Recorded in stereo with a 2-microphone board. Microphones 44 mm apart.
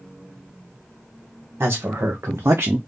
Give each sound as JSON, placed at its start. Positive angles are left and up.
{"t": 1.6, "sound": "a man speaking", "side_deg": -55, "distance_m": 1.3}